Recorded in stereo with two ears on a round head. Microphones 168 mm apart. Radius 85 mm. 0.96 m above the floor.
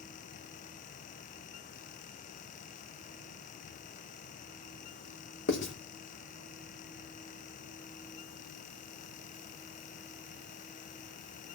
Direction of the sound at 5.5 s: 75° left (ahead or behind).